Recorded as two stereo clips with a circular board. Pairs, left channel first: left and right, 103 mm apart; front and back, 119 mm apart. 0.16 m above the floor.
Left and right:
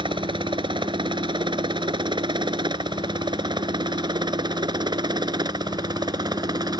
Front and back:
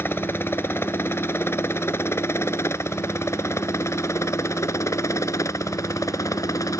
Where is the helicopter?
70° right; by 6.8 s 55° right.